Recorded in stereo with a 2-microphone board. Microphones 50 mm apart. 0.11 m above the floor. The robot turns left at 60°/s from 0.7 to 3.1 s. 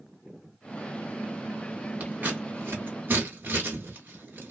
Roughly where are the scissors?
Right.